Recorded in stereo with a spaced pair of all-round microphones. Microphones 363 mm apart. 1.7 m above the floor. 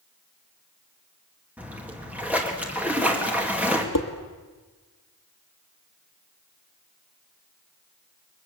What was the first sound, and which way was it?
A splash, 5° right (ahead or behind).